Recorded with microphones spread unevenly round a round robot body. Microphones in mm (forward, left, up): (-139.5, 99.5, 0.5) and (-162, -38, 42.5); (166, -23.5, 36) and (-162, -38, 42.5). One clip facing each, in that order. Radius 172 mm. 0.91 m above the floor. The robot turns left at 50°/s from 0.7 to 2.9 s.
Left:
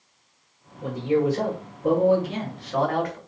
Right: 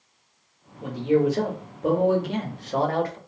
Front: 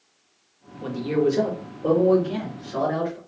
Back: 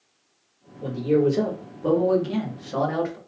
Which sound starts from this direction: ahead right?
A man speaking, at 0.8 s.